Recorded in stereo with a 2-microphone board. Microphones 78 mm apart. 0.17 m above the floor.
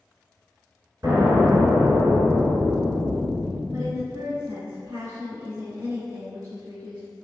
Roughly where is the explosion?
Right.